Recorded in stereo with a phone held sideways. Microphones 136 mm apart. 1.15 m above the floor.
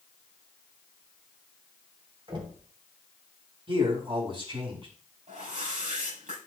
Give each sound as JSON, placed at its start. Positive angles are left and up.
{"t": 2.3, "sound": "knocking", "side_deg": -35, "distance_m": 3.0}
{"t": 3.7, "sound": "a man speaking", "side_deg": -40, "distance_m": 4.5}
{"t": 5.3, "sound": "a whoosh", "side_deg": -70, "distance_m": 6.5}